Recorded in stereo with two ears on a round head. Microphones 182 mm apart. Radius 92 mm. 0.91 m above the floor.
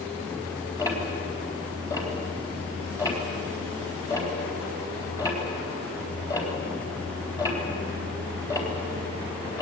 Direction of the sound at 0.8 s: 15° left (ahead or behind).